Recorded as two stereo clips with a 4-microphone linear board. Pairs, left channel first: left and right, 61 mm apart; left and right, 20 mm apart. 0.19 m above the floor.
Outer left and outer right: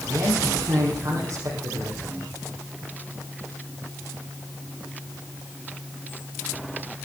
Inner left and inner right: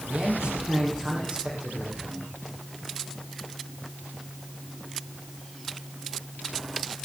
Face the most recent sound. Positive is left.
turn(degrees=-60)  # may be behind; listen again after turning